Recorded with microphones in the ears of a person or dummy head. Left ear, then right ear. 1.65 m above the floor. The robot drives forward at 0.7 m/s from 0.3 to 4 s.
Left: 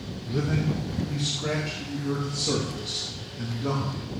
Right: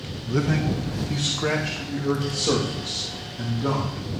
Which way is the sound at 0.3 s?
65° right (ahead or behind).